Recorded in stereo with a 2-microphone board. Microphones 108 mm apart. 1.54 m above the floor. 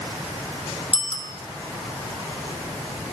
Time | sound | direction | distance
0.9 | a bicycle bell | 70° left (ahead or behind) | 2.5 m